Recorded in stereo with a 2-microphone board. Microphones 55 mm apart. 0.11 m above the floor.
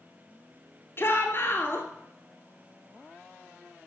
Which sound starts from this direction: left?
A shout, at 1.0 s.